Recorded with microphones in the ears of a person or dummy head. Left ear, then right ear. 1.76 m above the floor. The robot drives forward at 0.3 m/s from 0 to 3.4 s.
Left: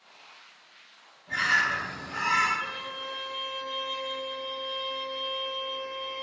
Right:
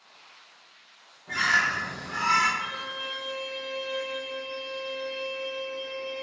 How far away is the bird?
About 1.0 m.